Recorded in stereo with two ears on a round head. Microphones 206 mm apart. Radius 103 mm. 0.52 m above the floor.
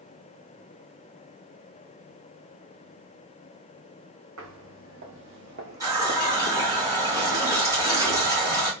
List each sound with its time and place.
4.4 s footsteps: 60° right (ahead or behind), 1.5 m; by 6.8 s 25° left (ahead or behind), 0.5 m
5.8 s a running tap: 15° right (ahead or behind), 2.5 m